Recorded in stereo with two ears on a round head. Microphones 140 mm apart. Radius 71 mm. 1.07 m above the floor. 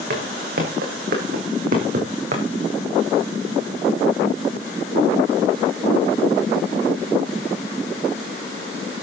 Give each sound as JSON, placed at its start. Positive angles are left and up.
{"t": 0.1, "sound": "footsteps", "side_deg": -70, "distance_m": 5.0}